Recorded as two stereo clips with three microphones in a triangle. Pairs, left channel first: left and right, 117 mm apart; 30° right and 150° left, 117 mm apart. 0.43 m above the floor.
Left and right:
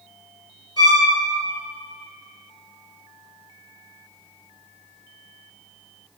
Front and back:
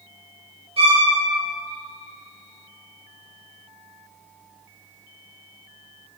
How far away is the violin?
About 2 m.